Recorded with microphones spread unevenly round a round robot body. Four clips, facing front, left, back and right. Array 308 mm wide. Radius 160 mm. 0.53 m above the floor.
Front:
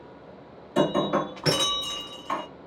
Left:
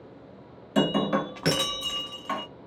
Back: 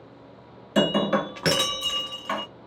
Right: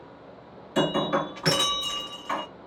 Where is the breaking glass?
165° left, 1.0 m.